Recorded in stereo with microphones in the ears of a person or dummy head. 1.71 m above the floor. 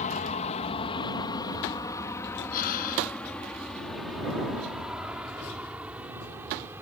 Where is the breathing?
45° left (ahead or behind).